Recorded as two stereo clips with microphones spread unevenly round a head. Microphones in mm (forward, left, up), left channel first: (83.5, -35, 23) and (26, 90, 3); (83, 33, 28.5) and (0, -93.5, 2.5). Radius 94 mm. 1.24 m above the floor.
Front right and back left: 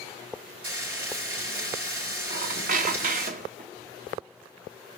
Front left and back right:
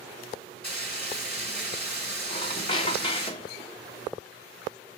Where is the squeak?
105° left, 0.6 m.